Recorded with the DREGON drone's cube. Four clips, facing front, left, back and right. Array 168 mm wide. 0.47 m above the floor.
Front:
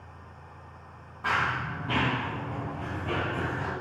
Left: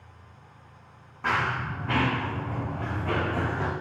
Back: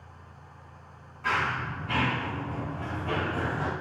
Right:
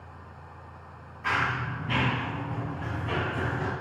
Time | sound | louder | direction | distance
1.2 | running footsteps | left 1 dB, even | 65° left | 3.5 m